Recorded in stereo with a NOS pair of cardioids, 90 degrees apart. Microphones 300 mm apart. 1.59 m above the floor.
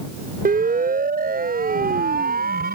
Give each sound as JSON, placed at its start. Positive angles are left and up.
{"t": 0.5, "sound": "a siren", "azimuth_deg": -30}